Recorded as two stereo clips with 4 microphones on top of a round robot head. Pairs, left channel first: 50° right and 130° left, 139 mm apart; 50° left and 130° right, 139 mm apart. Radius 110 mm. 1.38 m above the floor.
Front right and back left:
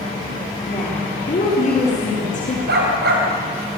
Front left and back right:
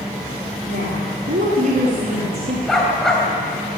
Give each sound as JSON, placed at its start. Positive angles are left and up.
{"t": 0.7, "sound": "a woman speaking", "azimuth_deg": -95, "distance_m": 4.0}
{"t": 2.7, "sound": "a dog barking", "azimuth_deg": 140, "distance_m": 3.5}